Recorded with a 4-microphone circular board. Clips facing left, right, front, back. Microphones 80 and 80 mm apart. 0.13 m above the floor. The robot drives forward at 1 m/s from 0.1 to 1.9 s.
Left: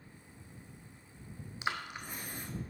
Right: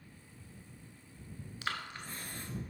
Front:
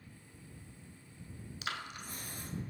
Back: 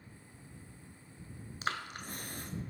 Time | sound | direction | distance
1.6 | breathing | 150° left | 0.6 m